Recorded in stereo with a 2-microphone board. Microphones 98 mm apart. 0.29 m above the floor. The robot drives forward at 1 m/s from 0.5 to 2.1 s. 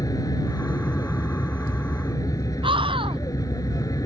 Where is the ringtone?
No ringtone in this recording.